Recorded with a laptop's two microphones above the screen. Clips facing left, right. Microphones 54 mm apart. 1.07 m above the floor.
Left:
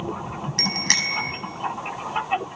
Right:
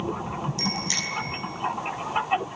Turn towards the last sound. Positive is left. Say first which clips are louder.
# left 4 dB
turn(degrees=65)  # may be behind; listen again after turning